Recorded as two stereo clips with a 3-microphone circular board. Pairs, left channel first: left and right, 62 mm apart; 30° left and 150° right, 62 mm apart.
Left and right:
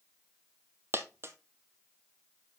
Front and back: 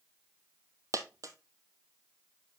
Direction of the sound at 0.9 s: 135° right.